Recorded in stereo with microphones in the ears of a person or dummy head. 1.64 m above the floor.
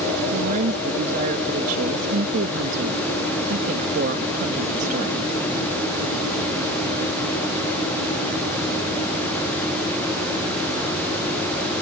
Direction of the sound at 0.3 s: 50° right (ahead or behind).